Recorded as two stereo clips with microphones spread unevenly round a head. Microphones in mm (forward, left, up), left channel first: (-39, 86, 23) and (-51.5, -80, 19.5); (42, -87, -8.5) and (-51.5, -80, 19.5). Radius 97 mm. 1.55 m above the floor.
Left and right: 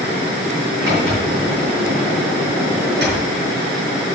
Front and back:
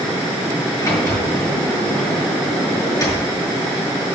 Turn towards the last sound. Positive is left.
turn(degrees=-60)